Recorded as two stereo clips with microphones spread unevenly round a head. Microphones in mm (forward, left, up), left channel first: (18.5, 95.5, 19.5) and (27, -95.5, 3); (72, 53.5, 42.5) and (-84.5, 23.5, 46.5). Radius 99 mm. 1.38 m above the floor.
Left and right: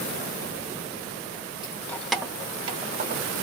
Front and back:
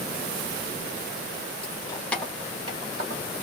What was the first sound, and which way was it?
Keys jangling, 45° left.